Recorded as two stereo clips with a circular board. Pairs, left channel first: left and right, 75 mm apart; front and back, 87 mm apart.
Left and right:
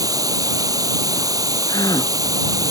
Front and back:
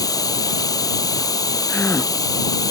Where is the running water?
50° right.